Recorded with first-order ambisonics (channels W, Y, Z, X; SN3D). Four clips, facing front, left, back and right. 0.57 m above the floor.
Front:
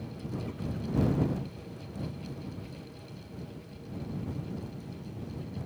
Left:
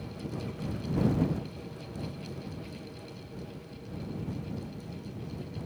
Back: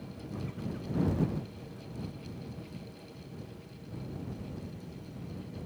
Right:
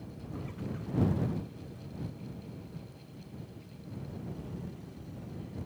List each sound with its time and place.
Only background noise.